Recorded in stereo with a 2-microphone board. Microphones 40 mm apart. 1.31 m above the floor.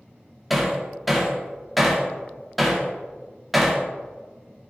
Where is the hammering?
Centre (ahead or behind), 1.6 m.